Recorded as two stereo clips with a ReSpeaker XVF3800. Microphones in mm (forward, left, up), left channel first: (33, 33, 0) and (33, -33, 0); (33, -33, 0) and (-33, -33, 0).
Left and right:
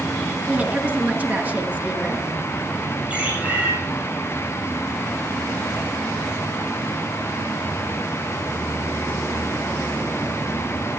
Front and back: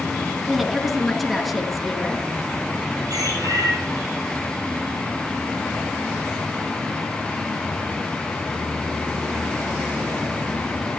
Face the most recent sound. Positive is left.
turn(degrees=-160)